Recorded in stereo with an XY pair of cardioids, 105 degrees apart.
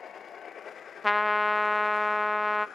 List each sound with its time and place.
1.0 s a trumpet: 10° left, 0.6 m